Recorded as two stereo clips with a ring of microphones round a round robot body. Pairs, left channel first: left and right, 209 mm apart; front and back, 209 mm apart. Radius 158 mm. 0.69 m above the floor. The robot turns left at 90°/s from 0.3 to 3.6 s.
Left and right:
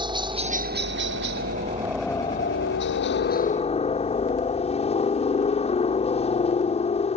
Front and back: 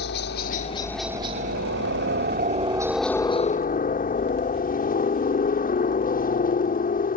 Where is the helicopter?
25° right; by 7.2 s 35° left.